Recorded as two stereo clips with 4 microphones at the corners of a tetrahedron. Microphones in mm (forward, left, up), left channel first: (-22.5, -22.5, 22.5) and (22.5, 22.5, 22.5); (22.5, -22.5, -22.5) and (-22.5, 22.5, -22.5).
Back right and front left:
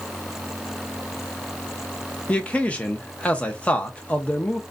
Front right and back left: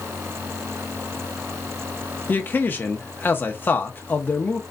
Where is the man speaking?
75° right, 0.7 m.